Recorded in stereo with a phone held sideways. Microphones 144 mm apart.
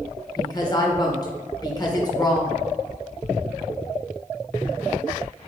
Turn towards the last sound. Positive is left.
turn(degrees=30)  # may be behind; listen again after turning